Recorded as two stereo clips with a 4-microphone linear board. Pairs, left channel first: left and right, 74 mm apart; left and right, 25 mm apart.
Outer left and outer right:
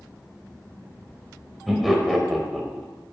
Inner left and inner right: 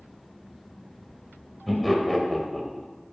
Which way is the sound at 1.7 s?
Centre (ahead or behind).